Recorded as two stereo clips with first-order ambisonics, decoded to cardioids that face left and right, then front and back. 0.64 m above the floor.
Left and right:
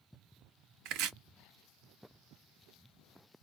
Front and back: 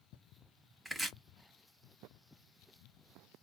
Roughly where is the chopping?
Right.